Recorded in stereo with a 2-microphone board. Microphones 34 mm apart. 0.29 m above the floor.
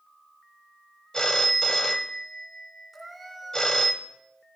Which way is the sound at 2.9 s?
5° left (ahead or behind).